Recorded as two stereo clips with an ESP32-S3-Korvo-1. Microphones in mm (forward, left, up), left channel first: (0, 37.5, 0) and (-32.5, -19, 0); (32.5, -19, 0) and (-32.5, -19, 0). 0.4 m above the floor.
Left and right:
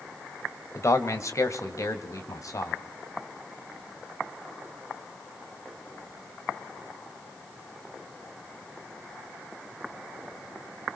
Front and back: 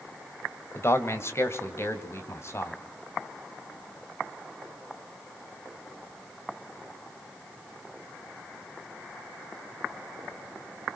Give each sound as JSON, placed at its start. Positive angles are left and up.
{"t": 0.8, "sound": "a man speaking", "azimuth_deg": 35, "distance_m": 1.8}